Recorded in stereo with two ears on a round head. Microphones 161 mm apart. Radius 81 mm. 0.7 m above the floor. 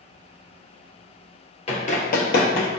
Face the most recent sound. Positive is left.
turn(degrees=65)  # may be behind; listen again after turning